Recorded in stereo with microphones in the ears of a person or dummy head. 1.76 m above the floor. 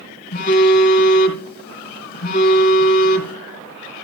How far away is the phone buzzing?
About 1.9 m.